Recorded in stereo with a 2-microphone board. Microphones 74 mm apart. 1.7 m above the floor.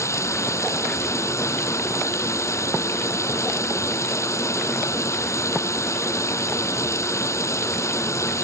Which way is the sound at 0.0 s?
40° left (ahead or behind).